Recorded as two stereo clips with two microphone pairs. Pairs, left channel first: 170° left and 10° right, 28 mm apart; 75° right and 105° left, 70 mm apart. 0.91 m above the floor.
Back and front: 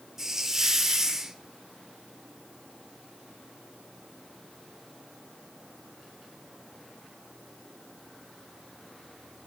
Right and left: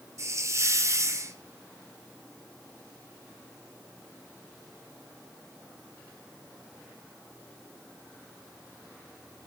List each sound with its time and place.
0.2 s a hiss: 60° left, 1.2 m